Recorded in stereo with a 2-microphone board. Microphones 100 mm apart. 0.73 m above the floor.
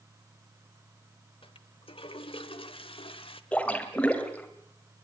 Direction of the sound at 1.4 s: 65° left (ahead or behind).